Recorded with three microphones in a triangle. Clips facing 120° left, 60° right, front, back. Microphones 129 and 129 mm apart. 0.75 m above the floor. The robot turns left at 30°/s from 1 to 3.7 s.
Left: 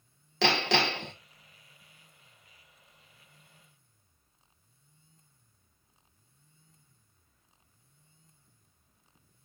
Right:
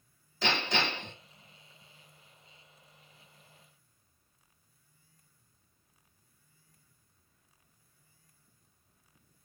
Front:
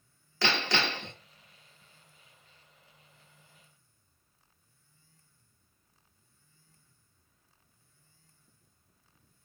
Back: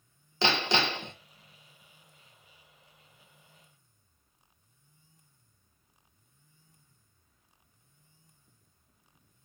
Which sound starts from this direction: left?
Hammering, at 0.4 s.